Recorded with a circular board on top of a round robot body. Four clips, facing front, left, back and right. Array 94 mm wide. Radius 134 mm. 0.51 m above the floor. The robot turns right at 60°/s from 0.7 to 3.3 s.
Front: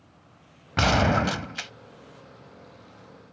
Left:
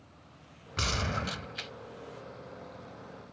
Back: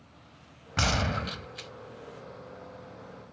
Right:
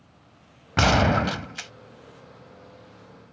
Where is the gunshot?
70° right; by 1.7 s 15° right.